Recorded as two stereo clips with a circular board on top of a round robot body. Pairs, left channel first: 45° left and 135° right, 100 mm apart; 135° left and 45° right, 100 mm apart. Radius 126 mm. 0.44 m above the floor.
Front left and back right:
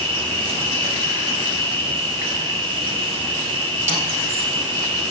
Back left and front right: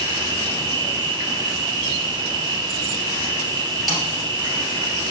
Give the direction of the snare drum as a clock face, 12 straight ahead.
4 o'clock.